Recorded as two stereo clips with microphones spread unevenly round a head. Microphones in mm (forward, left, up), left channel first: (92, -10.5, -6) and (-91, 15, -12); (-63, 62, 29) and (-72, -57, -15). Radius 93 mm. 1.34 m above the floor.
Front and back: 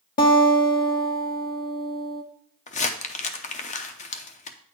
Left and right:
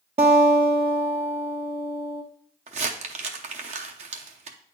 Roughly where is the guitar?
Ahead right.